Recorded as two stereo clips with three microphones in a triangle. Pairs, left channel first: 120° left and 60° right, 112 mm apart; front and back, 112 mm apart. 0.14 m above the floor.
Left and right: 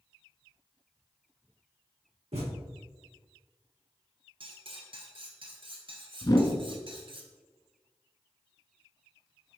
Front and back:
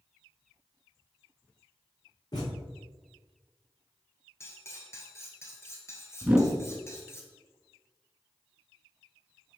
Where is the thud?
50° right, 3 m.